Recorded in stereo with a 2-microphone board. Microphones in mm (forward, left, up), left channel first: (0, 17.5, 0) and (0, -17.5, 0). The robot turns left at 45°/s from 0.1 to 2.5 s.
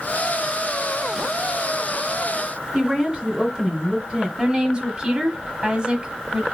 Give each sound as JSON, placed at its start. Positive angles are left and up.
{"t": 2.7, "sound": "a woman speaking", "side_deg": -25, "distance_m": 2.5}
{"t": 4.4, "sound": "a woman speaking", "side_deg": -25, "distance_m": 1.1}